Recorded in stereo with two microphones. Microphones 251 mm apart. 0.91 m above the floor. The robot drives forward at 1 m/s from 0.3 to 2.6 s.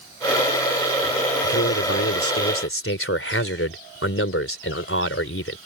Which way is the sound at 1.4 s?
70° left (ahead or behind).